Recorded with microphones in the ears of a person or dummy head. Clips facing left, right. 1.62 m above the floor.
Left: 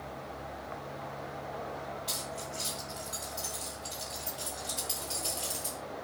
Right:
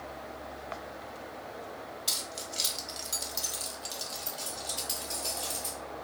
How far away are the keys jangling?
About 1.2 m.